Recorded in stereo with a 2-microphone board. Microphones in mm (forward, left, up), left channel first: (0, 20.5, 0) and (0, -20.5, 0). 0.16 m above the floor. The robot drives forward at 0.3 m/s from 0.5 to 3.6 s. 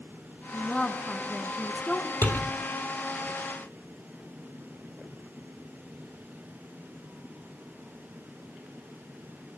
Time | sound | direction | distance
0.5 | a woman speaking | 20° left (ahead or behind) | 1.4 m
2.2 | a door slam | 55° left (ahead or behind) | 3 m